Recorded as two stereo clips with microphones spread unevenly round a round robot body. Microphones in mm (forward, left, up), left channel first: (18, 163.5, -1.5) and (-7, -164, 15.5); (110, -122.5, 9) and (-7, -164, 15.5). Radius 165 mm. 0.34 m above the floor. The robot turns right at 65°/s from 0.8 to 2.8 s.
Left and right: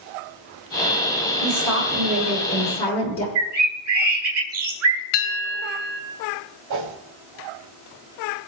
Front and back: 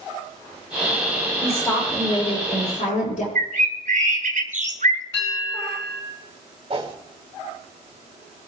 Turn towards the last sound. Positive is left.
turn(degrees=-125)